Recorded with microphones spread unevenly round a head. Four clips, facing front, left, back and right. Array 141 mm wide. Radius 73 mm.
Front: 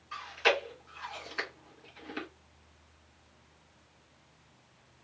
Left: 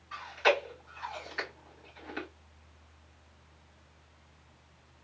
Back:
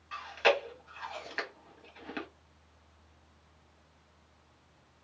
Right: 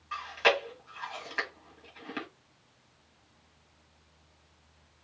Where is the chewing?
120° right, 1.8 m.